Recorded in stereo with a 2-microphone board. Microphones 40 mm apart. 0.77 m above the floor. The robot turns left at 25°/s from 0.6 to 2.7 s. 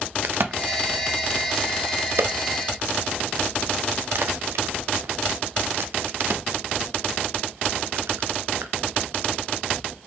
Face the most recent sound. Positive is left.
turn(degrees=-70)  # may be behind; listen again after turning